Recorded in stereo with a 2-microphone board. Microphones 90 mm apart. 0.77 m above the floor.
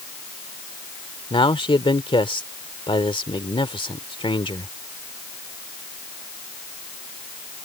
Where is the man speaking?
75° left (ahead or behind).